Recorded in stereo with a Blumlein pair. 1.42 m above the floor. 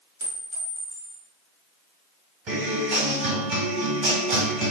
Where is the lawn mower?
I don't hear a lawn mower.